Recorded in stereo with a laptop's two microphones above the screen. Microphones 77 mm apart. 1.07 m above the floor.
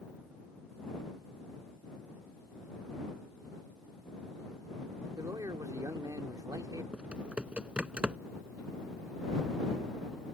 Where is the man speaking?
55° right (ahead or behind).